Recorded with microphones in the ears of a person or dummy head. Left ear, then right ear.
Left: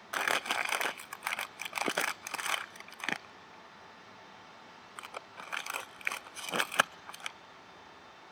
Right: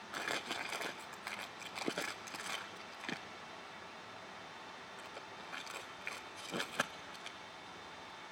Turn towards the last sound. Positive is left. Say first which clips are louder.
# left 9 dB
turn(degrees=40)  # may be behind; listen again after turning